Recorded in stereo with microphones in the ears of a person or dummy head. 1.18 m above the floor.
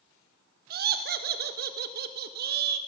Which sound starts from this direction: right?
Laughter, at 0.7 s.